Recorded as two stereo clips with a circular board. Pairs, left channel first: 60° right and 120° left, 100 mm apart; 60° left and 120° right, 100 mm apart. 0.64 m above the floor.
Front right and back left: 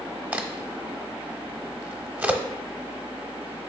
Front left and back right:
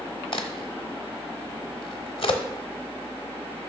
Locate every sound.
0.3 s a crack: 45° left, 0.7 m